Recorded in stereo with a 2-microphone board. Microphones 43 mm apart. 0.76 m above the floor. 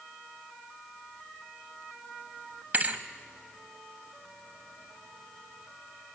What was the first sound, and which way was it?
A thud, 40° right (ahead or behind).